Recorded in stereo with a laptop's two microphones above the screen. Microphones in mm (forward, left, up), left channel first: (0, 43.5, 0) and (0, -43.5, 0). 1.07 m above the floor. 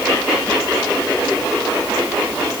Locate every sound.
Only background noise.